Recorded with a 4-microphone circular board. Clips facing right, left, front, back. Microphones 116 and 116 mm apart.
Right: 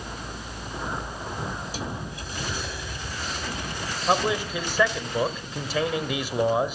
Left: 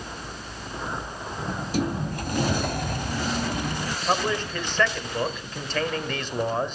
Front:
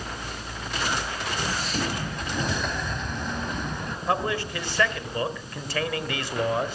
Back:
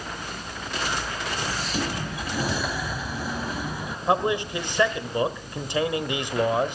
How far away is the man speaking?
About 1.3 m.